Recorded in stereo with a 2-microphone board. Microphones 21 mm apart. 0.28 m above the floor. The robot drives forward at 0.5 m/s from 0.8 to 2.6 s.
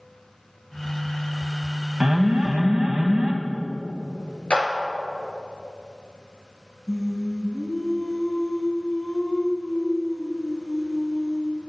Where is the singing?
35° left (ahead or behind), 1.1 m.